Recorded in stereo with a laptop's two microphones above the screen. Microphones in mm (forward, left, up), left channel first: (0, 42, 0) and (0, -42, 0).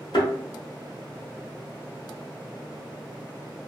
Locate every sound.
0.1 s a thud: 65° left (ahead or behind), 1.3 m